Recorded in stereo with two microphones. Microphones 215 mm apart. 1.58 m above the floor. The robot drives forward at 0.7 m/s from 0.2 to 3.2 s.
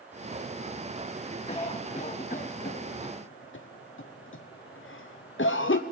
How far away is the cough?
About 1.6 m.